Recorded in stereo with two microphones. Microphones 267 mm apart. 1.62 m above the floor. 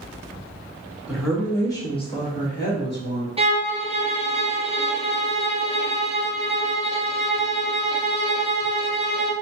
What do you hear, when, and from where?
1.1 s a woman speaking: 5° right (ahead or behind), 1.3 m; by 3.3 s 50° left (ahead or behind), 1.3 m
3.4 s a violin: 20° right (ahead or behind), 0.6 m